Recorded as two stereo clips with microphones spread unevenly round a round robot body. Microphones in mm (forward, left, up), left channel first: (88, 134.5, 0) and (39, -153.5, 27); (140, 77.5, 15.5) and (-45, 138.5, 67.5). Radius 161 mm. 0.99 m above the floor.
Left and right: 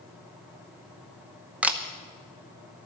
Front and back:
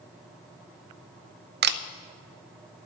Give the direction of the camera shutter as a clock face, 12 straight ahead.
6 o'clock.